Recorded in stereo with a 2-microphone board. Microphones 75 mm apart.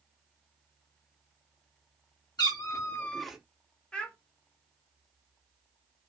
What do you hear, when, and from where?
2.4 s a cat meowing: 60° left (ahead or behind), 0.9 m; by 3.4 s 10° right (ahead or behind), 0.6 m
3.9 s a child speaking: 15° left (ahead or behind), 0.8 m